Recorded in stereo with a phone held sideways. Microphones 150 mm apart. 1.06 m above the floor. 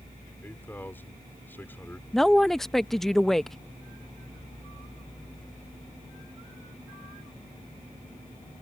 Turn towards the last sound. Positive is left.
turn(degrees=0)  # may be behind; listen again after turning